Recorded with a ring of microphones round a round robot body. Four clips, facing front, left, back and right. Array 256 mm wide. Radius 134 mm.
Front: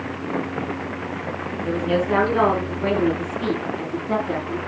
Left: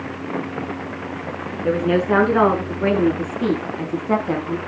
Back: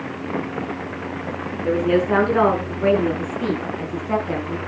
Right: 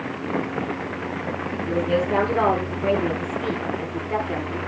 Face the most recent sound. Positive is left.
turn(degrees=95)